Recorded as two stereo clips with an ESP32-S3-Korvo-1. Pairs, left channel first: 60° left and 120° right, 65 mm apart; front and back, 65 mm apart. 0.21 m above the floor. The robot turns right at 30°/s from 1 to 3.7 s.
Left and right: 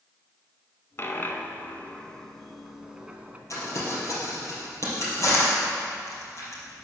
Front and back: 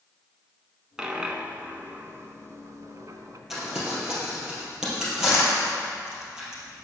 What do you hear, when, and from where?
1.0 s a dropped coin: 105° left, 0.6 m; by 3.4 s 175° left, 0.6 m
3.5 s crumpling: 95° left, 3 m; by 6.8 s 100° left, 3 m